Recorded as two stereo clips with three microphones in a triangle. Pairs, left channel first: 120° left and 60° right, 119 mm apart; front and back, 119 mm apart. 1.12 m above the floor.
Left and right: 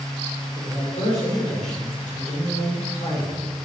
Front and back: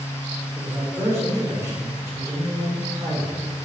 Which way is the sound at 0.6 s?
110° left.